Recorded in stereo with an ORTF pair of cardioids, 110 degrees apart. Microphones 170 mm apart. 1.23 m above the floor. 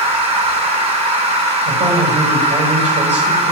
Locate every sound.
0.0 s a machine running: 35° right, 6.5 m
1.6 s a man speaking: 45° right, 6 m